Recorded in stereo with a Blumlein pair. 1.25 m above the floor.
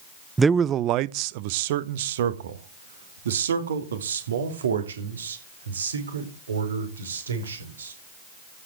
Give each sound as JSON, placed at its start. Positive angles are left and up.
{"t": 0.4, "sound": "a man speaking", "azimuth_deg": -10, "distance_m": 0.5}